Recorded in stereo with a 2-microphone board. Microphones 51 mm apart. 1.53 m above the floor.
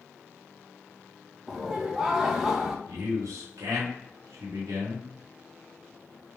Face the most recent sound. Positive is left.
turn(degrees=-80)